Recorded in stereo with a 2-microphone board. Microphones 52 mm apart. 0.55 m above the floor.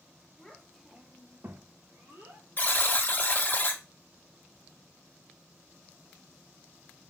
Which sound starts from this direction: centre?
A child speaking, at 0.4 s.